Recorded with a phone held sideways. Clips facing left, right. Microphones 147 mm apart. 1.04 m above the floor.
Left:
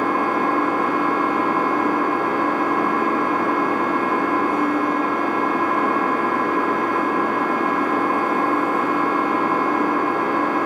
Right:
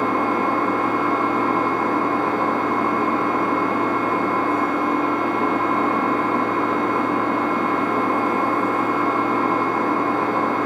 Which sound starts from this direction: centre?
An engine running, at 0.0 s.